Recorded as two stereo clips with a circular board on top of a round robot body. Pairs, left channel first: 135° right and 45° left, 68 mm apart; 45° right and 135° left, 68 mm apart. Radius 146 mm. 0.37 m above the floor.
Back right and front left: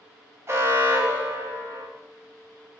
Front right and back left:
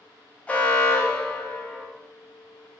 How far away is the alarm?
About 0.7 m.